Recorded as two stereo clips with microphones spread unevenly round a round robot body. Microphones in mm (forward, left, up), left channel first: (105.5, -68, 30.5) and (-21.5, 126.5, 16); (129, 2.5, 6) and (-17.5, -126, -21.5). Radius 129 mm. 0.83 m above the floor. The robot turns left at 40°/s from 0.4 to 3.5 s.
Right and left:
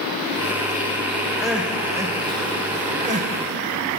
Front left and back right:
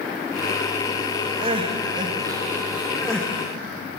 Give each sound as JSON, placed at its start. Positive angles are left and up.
{"t": 1.4, "sound": "crying", "azimuth_deg": -150, "distance_m": 1.1}